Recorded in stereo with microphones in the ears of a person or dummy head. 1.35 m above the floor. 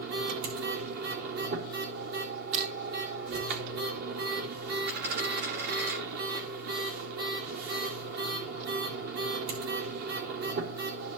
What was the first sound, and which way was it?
A machine running, 60° right (ahead or behind).